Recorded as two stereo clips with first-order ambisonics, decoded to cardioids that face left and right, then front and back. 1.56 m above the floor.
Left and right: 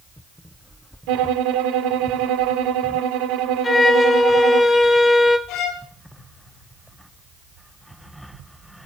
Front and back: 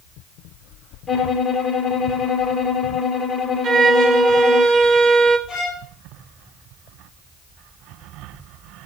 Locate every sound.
1.1 s a violin: 75° right, 1.3 m
3.6 s a violin: 150° left, 1.1 m
5.5 s a violin: 90° left, 5.5 m